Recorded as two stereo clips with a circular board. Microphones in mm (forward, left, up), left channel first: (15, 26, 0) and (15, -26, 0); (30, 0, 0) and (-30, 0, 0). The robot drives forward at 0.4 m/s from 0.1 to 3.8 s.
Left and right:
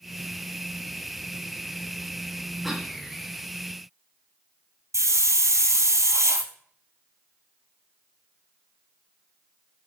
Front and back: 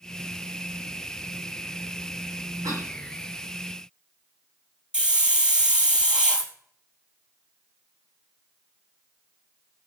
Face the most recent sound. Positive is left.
turn(degrees=-105)